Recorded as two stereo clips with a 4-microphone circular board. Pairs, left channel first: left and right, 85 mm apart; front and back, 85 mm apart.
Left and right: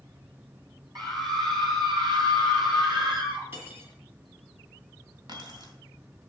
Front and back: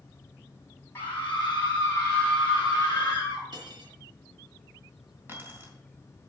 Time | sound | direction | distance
0.9 | a scream | 65° right | 4.5 m
3.5 | cutlery clinking | 150° right | 2.5 m
5.3 | keys jangling | 120° right | 2.5 m